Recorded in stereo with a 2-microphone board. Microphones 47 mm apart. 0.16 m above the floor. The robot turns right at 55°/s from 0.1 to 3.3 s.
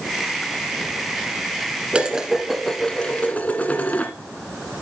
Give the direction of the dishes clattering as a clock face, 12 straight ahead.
1 o'clock.